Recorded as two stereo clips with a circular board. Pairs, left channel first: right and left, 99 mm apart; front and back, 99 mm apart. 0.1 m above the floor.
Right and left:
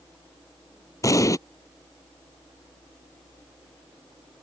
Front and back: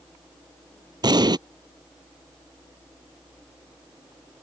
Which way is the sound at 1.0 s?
140° right.